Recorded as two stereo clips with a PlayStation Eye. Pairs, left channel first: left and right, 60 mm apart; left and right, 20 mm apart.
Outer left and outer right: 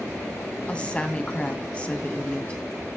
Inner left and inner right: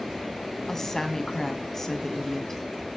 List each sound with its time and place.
0.7 s a woman speaking: 20° left (ahead or behind), 2.5 m